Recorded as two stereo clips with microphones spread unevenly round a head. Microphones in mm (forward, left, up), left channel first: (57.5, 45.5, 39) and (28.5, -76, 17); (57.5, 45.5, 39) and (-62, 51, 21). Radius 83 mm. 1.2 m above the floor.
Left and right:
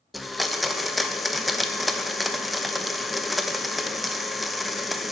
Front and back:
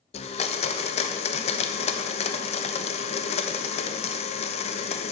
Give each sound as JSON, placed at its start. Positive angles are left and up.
{"t": 0.1, "sound": "a blender", "azimuth_deg": -25, "distance_m": 0.6}